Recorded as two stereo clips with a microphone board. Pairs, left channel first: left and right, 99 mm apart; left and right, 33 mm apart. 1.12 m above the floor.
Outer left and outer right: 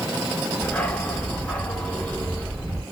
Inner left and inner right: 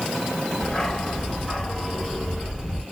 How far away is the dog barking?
About 1.2 m.